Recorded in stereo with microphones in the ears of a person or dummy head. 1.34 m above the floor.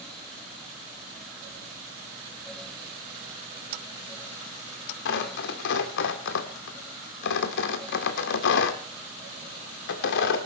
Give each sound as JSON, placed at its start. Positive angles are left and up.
{"t": 5.0, "sound": "tearing paper", "side_deg": 60, "distance_m": 2.0}